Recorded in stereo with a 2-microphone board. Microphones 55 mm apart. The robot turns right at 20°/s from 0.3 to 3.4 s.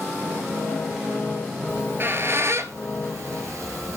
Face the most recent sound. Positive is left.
turn(degrees=-70)  # may be behind; listen again after turning